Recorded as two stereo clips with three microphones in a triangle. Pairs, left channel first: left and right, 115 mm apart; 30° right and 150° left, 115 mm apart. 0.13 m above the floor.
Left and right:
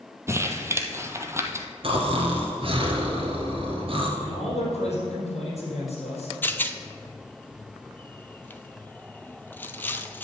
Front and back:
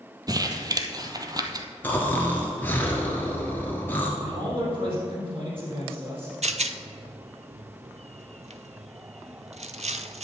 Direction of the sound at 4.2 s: 110° left.